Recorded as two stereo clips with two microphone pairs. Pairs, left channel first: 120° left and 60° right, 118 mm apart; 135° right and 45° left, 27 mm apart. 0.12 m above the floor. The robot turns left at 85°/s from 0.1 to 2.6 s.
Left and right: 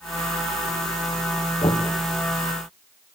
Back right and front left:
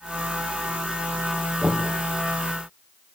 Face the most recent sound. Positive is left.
turn(degrees=15)